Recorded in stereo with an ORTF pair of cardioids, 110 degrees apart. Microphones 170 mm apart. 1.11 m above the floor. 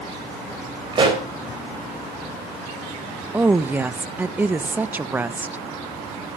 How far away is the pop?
About 5 m.